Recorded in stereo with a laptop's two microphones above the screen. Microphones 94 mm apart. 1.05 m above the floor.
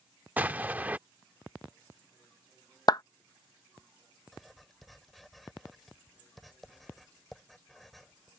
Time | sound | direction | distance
0.4 | an explosion | 20° right (ahead or behind) | ?
2.9 | a clap | 45° left (ahead or behind) | ?
4.3 | writing | centre (ahead or behind) | ?